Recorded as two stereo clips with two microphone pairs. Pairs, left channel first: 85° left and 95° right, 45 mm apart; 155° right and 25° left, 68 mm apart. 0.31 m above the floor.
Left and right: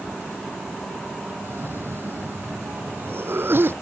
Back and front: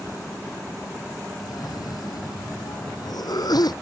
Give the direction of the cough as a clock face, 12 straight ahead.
4 o'clock.